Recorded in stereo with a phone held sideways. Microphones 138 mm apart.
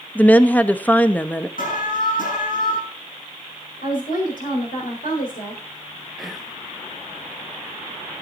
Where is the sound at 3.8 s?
80° left, 4.5 m.